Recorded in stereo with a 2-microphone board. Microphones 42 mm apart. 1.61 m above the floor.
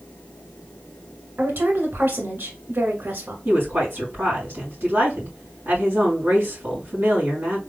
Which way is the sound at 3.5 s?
50° right (ahead or behind).